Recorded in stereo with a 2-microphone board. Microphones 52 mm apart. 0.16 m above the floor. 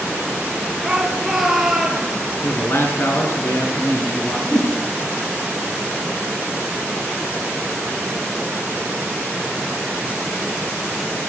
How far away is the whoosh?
About 2.5 m.